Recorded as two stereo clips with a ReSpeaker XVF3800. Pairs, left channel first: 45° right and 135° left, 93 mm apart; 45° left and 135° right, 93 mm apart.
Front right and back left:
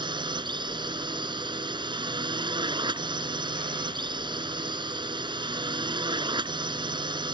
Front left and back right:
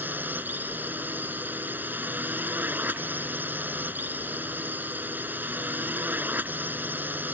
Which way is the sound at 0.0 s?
155° left.